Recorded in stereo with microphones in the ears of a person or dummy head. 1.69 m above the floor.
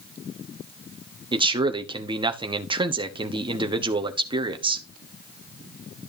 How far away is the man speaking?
About 1.0 m.